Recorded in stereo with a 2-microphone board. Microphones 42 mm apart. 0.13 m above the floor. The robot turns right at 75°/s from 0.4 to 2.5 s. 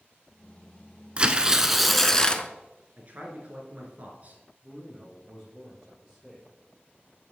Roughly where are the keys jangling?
No keys jangling in this recording.